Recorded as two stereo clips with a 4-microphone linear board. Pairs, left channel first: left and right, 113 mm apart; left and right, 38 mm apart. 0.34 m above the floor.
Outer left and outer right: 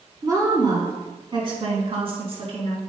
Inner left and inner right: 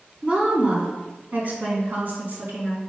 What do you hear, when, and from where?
0.2 s a woman speaking: 30° right (ahead or behind), 3.5 m; by 2.8 s 60° right (ahead or behind), 3.5 m